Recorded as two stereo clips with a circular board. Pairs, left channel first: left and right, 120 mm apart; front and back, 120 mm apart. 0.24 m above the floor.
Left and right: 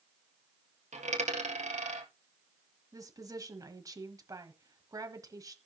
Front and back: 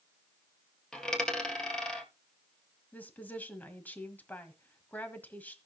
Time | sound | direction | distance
0.9 | a dropped coin | 85° right | 1.9 m
2.9 | a woman speaking | 65° right | 1.3 m